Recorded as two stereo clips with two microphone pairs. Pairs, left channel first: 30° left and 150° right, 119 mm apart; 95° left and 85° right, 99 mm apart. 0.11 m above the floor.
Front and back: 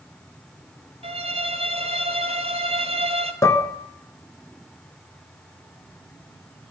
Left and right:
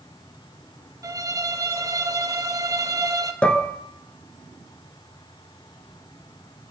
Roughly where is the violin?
Behind right.